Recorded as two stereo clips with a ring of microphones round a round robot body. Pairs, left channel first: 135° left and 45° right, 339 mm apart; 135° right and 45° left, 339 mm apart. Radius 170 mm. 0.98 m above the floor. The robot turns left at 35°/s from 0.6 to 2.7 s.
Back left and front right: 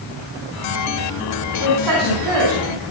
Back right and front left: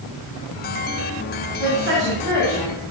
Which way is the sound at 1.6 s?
Straight ahead.